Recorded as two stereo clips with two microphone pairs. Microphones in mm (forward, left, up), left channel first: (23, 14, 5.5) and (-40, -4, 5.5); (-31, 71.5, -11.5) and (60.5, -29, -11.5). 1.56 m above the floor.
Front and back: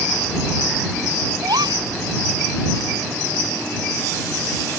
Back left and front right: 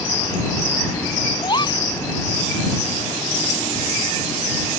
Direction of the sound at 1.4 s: 170° right.